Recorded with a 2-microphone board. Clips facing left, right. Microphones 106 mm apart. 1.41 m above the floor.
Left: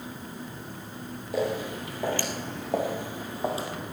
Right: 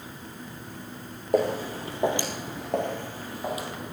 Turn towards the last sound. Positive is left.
turn(degrees=30)  # may be behind; listen again after turning